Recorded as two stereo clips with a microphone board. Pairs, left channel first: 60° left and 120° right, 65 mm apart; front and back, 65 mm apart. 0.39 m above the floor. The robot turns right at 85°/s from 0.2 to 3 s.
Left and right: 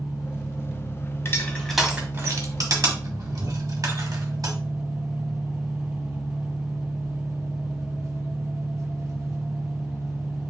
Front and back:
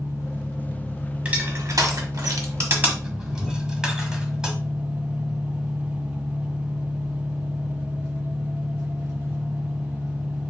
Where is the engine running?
15° left, 2.5 m; by 10.5 s 105° right, 2.5 m.